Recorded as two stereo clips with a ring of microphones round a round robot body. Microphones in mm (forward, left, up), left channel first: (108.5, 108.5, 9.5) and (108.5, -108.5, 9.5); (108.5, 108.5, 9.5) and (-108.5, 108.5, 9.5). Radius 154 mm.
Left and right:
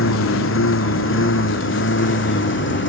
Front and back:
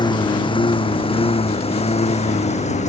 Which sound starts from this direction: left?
A lawn mower, at 0.0 s.